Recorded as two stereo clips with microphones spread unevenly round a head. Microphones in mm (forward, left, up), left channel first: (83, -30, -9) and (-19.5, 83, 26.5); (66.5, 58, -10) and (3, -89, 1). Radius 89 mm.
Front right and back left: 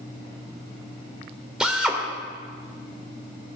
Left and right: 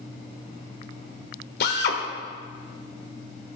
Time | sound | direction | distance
1.6 | a drill | 50° left | 2.5 m